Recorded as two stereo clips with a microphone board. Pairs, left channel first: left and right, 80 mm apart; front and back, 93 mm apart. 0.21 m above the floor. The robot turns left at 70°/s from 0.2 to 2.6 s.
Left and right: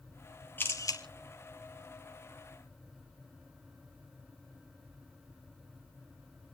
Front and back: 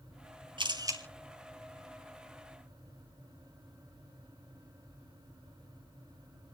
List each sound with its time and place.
0.6 s a camera shutter: 155° left, 2.5 m; by 1.0 s 120° left, 2.5 m